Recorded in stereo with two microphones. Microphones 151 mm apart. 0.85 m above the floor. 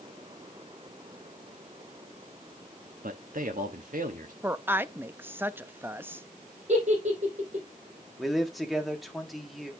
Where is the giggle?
55° right (ahead or behind), 4.5 m.